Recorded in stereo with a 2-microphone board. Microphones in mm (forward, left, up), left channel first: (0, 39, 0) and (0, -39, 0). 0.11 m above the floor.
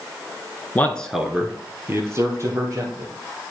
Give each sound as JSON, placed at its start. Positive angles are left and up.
{"t": 0.8, "sound": "a man speaking", "side_deg": 25, "distance_m": 1.1}